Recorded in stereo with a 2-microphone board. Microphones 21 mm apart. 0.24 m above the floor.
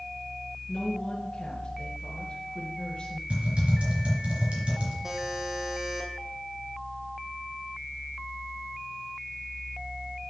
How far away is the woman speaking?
About 1.3 m.